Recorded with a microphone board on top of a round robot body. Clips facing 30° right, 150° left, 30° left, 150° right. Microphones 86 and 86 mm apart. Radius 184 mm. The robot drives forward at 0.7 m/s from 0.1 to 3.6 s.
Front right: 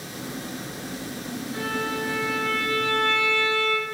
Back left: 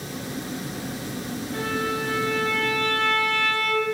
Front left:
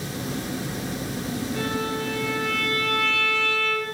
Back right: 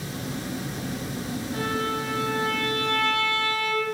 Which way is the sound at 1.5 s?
175° right.